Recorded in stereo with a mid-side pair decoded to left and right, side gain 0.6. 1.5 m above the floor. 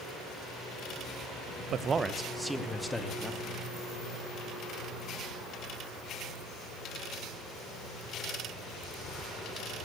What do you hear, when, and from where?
1.7 s a man speaking: 50° right, 0.9 m; by 3.5 s 10° left, 3 m